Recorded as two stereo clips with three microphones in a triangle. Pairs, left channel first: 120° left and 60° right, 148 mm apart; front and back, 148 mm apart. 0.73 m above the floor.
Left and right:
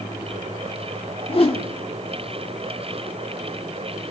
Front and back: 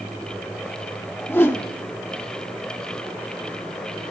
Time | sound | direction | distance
1.3 | a whoosh | 75° left | 1.2 m